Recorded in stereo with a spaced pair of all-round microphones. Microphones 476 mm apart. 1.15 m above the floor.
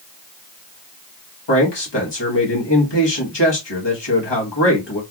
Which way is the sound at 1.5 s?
60° left (ahead or behind).